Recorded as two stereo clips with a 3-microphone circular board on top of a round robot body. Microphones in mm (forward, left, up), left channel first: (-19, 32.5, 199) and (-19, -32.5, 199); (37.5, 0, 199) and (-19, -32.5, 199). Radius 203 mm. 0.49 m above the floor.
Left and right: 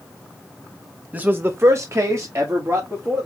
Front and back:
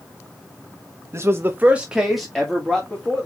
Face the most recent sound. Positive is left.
turn(degrees=-45)